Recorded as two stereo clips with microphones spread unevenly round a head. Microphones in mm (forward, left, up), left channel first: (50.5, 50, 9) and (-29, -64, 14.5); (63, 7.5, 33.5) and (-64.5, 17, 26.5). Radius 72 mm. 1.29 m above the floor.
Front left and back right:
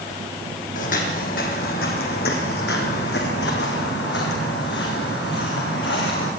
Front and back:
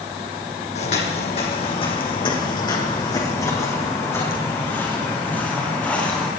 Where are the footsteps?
30° left, 3 m; by 6.3 s 75° left, 4.5 m.